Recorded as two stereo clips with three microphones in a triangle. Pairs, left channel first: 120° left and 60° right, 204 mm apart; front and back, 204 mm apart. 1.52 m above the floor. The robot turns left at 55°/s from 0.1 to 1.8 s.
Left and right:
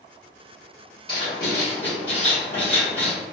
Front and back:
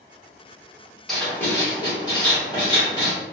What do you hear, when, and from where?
1.1 s writing: 85° left, 1.3 m; by 3.1 s 50° left, 1.3 m